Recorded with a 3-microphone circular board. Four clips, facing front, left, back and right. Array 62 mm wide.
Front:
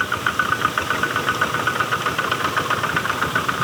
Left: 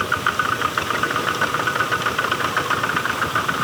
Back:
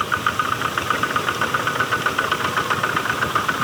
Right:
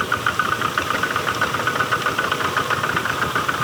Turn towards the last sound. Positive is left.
No sound to turn to.